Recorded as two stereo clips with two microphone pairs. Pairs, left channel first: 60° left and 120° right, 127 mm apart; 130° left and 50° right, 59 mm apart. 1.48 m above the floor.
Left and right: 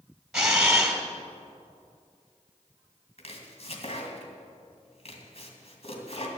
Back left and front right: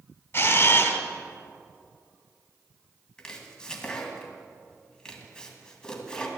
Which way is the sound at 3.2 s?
55° left.